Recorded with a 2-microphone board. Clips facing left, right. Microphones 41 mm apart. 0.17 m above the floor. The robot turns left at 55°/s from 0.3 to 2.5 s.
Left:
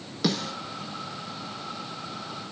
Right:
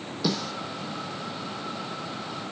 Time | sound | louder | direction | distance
0.2 | a snare drum | left 1 dB | 60° left (ahead or behind) | 0.7 m